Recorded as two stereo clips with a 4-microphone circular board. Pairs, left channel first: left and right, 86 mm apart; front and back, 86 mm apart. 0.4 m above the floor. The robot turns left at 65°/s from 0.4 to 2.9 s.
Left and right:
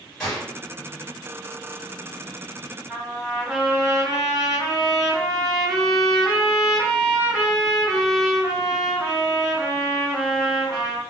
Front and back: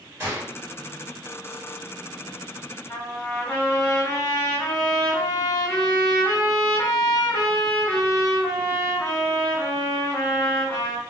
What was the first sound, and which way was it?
A gunshot, 165° left.